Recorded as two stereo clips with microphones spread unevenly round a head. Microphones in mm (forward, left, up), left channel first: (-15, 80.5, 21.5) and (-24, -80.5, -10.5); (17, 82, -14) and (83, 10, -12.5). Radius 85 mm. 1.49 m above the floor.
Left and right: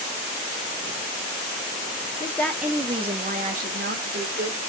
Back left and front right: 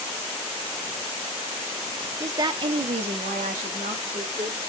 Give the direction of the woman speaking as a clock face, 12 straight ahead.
12 o'clock.